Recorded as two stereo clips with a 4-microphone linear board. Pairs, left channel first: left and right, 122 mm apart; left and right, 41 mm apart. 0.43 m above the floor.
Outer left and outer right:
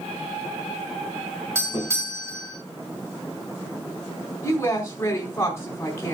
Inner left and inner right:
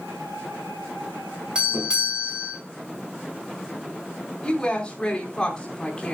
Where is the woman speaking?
20° left (ahead or behind), 4 m.